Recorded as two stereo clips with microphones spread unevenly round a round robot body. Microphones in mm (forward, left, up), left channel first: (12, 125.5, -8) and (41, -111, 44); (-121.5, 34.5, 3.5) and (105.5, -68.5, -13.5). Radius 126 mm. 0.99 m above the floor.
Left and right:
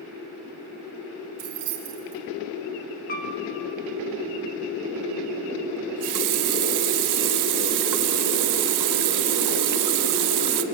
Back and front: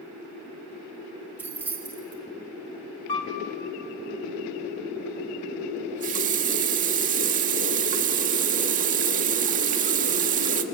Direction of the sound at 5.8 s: 85° right.